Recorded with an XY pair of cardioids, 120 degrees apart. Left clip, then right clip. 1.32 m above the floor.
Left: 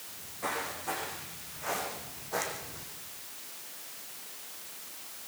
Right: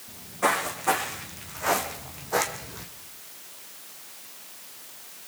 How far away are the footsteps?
About 6.5 m.